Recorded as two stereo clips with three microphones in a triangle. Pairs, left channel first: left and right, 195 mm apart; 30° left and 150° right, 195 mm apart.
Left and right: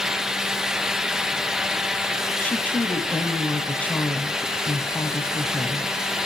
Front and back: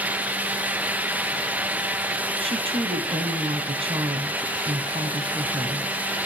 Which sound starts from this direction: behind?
A woman speaking, at 2.4 s.